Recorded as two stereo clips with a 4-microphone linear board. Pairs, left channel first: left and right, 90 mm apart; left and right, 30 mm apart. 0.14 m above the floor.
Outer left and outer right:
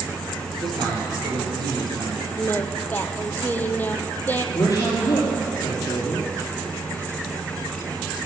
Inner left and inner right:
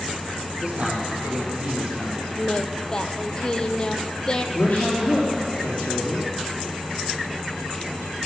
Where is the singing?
20° left (ahead or behind), 1.0 m.